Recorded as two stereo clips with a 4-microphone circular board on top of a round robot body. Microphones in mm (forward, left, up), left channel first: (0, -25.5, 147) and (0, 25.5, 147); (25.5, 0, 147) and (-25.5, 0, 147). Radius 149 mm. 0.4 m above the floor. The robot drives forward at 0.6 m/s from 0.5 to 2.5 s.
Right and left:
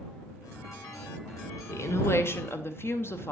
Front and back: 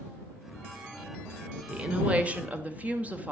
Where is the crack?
No crack in this recording.